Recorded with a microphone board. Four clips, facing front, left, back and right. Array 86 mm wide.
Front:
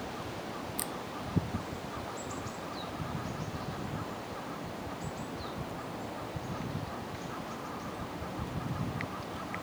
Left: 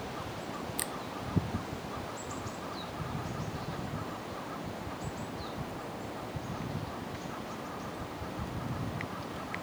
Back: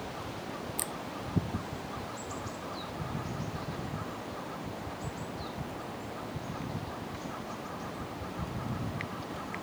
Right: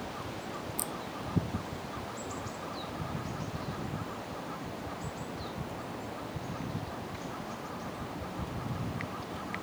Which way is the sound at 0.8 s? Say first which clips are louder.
Even, even; 95° left.